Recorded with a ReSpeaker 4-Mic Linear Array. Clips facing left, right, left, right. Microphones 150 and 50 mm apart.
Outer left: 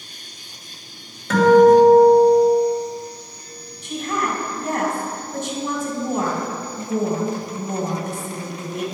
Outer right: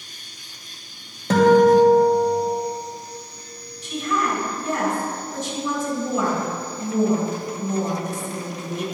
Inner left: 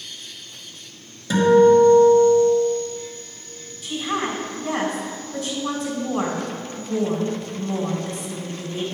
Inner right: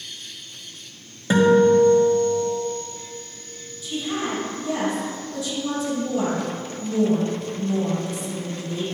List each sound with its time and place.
1.3 s a guitar: 35° right (ahead or behind), 1.5 m
3.8 s a woman speaking: 60° left (ahead or behind), 2 m